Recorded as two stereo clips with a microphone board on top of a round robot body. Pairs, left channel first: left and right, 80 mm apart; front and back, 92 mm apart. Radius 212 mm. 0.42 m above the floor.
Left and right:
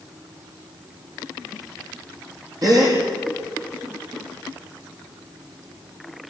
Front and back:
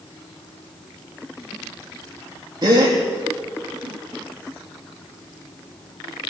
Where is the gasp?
135° right, 4 m.